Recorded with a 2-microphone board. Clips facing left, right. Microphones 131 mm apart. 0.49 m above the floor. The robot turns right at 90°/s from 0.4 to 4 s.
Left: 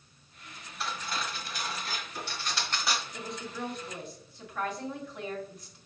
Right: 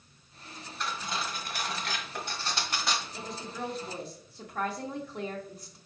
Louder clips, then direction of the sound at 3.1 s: Even; 165° left.